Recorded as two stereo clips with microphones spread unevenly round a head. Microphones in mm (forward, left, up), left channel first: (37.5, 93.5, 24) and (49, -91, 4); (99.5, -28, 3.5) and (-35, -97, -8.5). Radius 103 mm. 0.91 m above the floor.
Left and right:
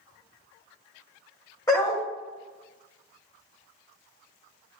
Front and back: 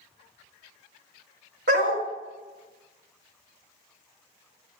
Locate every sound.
1.7 s a dog barking: 170° left, 1.5 m